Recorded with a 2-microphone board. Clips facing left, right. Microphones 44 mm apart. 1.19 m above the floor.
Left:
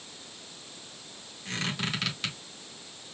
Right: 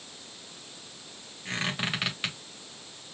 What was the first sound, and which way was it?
A squeak, 20° right (ahead or behind).